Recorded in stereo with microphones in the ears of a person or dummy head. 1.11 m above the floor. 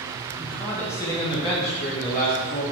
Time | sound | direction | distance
0.4 | a man speaking | 5° right (ahead or behind) | 1.0 m